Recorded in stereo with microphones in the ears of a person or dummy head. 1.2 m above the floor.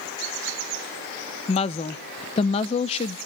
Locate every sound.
1.5 s a woman speaking: 35° left (ahead or behind), 0.5 m